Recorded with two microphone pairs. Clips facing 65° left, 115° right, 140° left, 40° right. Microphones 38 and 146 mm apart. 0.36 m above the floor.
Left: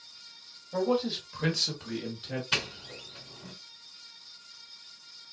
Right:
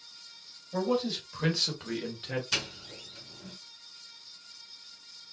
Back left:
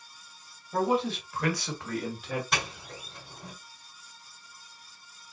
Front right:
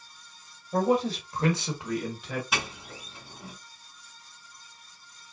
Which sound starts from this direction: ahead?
A man speaking, at 0.7 s.